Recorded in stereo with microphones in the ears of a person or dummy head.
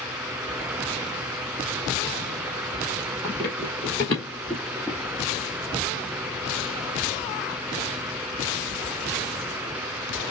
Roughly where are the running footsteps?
Centre.